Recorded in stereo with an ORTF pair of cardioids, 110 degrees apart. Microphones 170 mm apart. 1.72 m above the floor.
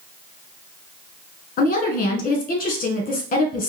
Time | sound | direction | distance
1.6 | a woman speaking | 55° left | 1.7 m